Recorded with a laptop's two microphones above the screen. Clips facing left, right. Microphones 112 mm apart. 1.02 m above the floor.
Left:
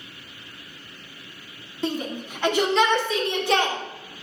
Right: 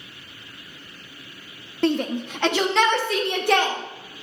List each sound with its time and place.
1.8 s a shout: 65° right (ahead or behind), 1.4 m; by 3.8 s 60° right (ahead or behind), 3 m